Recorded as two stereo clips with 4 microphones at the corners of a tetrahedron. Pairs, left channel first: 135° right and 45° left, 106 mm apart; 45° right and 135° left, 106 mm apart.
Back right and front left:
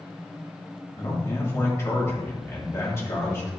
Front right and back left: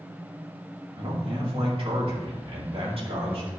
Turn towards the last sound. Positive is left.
turn(degrees=160)